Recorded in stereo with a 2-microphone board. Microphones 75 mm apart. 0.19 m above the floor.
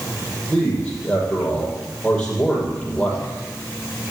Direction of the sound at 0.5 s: 15° left (ahead or behind).